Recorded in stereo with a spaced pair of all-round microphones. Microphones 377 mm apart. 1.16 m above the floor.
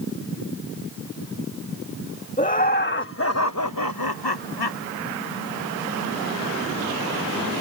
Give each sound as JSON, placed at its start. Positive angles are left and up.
{"t": 2.4, "sound": "laughter", "side_deg": 20}